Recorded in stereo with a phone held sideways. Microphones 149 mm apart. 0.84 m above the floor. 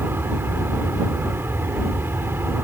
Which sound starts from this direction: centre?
An aircraft, at 0.0 s.